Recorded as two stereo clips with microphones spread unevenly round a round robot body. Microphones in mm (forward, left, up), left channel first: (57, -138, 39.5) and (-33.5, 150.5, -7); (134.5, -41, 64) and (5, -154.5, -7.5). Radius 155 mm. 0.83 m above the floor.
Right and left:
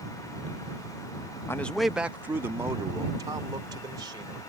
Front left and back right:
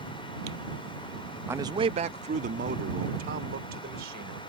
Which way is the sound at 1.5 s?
160° right.